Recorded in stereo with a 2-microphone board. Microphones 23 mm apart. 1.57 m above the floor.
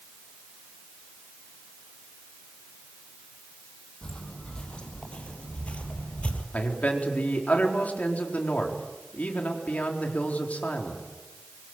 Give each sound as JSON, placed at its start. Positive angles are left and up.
{"t": 4.0, "sound": "footsteps", "side_deg": 30, "distance_m": 4.0}
{"t": 6.5, "sound": "a man speaking", "side_deg": 75, "distance_m": 4.0}